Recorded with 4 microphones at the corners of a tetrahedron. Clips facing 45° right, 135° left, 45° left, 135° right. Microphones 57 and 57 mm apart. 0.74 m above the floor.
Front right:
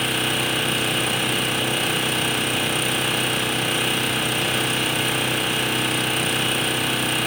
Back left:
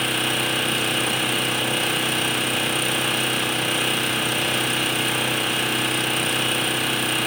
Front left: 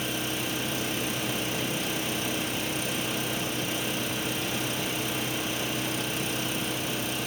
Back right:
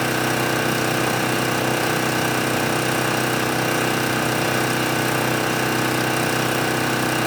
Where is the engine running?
135° right, 0.7 m.